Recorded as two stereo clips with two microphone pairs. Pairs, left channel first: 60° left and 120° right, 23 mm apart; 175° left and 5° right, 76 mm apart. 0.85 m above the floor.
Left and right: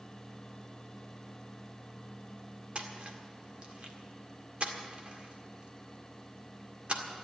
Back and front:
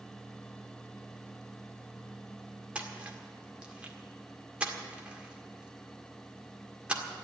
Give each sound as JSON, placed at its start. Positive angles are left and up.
{"t": 2.8, "sound": "a splash", "azimuth_deg": -80, "distance_m": 1.8}